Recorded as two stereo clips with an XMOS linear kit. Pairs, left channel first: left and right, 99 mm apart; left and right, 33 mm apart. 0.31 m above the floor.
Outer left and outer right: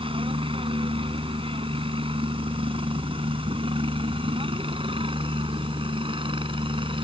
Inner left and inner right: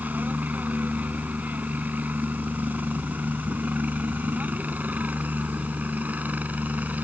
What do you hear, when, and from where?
0.0 s a helicopter: 65° right (ahead or behind); by 7.0 s 60° right (ahead or behind)